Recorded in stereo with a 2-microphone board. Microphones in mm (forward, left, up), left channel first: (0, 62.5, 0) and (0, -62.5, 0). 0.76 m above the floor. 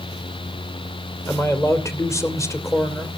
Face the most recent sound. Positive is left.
turn(degrees=25)  # may be behind; listen again after turning